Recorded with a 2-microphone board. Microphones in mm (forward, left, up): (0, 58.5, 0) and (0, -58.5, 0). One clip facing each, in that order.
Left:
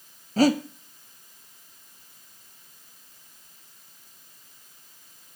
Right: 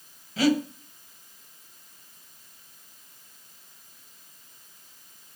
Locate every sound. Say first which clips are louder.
0.4 s breathing: left 2 dB; 40° left (ahead or behind), 0.7 m